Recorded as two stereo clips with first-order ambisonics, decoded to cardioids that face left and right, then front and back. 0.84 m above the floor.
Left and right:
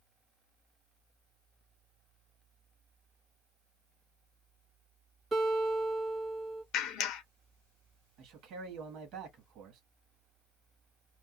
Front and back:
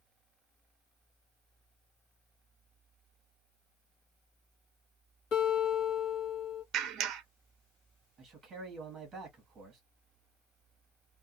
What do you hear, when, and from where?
5.3 s a guitar: 15° right, 1.2 m
6.7 s a clap: 130° left, 0.5 m
8.2 s a man speaking: 120° right, 1.4 m